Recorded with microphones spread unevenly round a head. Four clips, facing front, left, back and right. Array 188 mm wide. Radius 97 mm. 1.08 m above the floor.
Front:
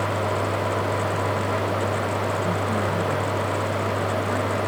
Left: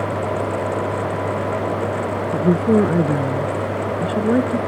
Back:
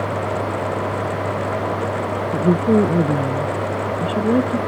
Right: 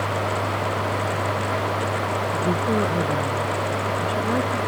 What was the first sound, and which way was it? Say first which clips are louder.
A woman speaking: left 9 dB, back 8 dB; 140° left.